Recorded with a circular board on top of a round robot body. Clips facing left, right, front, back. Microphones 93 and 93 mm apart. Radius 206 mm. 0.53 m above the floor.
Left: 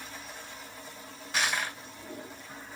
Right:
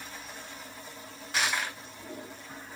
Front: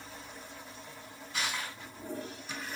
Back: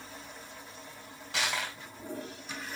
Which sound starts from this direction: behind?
Crushing, at 1.3 s.